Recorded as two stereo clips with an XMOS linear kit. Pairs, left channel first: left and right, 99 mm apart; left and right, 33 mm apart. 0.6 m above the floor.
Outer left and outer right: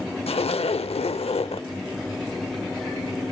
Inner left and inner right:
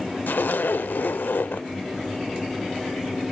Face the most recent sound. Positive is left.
turn(degrees=85)